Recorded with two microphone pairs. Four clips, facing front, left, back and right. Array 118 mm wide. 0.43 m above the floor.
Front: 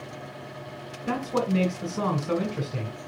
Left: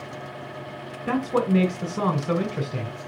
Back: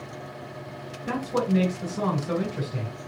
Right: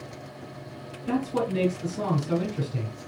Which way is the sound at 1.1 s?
80° left.